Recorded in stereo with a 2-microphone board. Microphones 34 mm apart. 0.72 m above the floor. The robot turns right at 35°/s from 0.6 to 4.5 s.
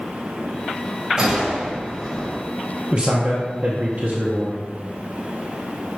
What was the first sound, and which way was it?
A gunshot, 25° right.